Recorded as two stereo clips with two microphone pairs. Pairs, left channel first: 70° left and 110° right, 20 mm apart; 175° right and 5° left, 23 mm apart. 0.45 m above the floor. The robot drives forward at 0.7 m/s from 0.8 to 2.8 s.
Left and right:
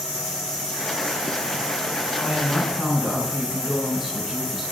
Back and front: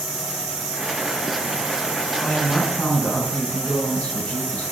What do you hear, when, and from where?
2.2 s a woman speaking: 175° left, 3.5 m